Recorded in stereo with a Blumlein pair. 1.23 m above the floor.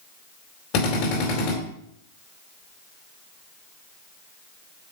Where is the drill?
40° left, 4 m.